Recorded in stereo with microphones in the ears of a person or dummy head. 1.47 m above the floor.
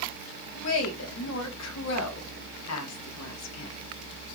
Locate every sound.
0.6 s a woman speaking: 90° left, 1.4 m